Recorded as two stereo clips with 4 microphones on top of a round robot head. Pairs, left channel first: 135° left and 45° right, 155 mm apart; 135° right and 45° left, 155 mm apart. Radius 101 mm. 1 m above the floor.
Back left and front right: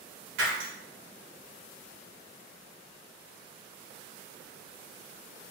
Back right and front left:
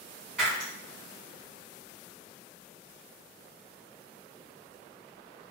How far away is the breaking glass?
About 1.5 m.